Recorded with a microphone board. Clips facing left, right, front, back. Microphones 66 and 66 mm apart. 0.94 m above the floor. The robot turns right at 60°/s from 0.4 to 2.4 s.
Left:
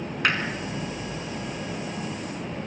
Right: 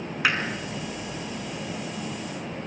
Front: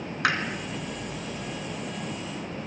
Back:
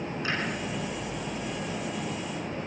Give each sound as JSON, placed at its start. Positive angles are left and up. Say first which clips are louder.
{"t": 0.2, "sound": "hammering", "louder": "even, front 7 dB", "azimuth_deg": -5, "distance_m": 3.5}